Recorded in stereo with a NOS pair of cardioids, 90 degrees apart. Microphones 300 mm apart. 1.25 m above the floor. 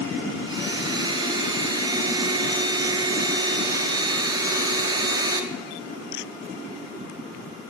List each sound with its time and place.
0.5 s a blender: 15° right, 1.8 m